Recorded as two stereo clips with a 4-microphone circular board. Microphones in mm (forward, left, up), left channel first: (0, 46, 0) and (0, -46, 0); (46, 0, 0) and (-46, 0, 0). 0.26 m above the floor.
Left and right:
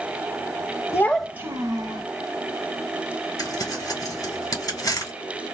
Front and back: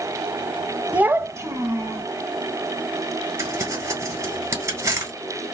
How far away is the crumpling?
About 2.5 m.